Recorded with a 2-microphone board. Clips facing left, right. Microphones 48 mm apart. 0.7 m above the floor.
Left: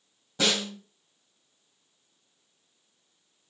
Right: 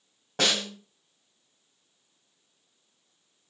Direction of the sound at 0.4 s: 55° right (ahead or behind).